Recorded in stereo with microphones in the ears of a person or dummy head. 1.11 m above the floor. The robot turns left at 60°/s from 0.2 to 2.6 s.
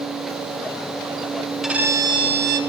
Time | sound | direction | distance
1.6 | a violin | straight ahead | 0.9 m